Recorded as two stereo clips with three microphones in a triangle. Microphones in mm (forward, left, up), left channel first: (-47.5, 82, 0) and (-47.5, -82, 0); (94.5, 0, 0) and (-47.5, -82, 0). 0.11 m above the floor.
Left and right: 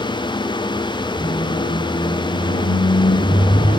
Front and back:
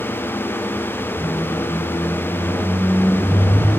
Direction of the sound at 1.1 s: 110° left.